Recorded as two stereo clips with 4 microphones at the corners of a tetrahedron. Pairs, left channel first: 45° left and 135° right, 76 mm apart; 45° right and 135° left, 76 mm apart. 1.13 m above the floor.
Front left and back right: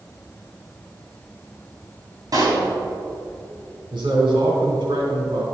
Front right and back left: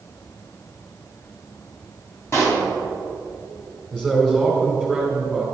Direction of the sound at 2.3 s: 95° right.